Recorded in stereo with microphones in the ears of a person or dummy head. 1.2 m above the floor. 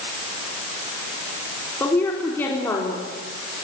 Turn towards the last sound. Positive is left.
turn(degrees=10)  # may be behind; listen again after turning